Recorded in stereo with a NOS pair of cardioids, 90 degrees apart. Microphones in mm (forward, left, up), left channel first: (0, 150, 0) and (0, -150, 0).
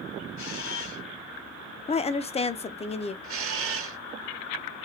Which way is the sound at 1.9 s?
20° left.